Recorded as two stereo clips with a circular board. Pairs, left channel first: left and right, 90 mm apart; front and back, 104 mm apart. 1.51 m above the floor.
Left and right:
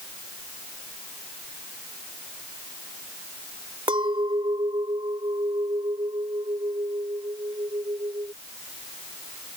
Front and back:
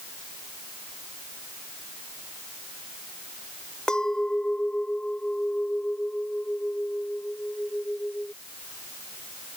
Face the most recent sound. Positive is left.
turn(degrees=-80)